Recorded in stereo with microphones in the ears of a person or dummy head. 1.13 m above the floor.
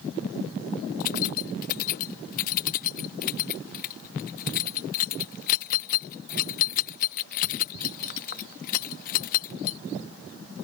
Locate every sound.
1.0 s keys jangling: 50° left (ahead or behind)